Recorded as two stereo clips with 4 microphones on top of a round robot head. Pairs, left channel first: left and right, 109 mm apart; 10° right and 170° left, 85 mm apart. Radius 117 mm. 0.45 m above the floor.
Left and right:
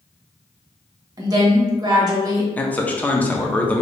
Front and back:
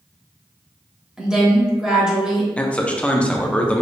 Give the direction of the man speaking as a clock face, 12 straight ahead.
11 o'clock.